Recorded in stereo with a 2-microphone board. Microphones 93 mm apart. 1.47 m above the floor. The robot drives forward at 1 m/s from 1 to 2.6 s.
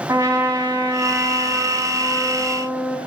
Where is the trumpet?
35° right (ahead or behind), 2 m; by 3.0 s 20° right (ahead or behind), 3.5 m.